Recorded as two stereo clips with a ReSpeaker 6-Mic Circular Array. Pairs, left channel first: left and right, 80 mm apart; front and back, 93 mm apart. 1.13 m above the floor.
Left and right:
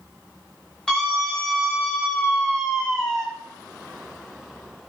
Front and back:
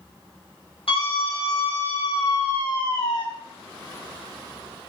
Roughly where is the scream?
Ahead.